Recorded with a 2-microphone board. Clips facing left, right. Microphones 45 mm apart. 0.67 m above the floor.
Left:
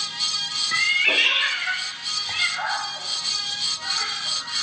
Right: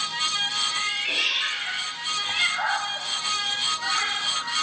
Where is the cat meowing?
60° left (ahead or behind), 0.9 m; by 4.6 s 25° right (ahead or behind), 2.5 m.